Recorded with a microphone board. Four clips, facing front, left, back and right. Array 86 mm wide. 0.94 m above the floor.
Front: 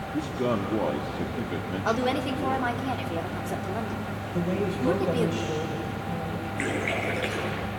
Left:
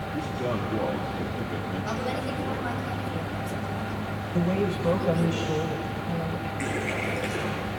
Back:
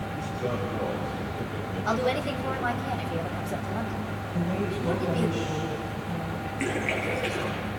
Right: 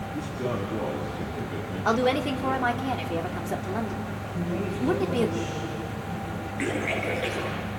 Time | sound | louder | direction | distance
0.1 | a man speaking | left 1 dB, front 5 dB | 5° left | 2.5 m
1.9 | a woman speaking | right 10 dB, even | 60° right | 2.5 m
4.3 | a man speaking | left 5 dB, front 2 dB | 60° left | 3.5 m
6.6 | a splash | right 3 dB, even | 20° right | 10 m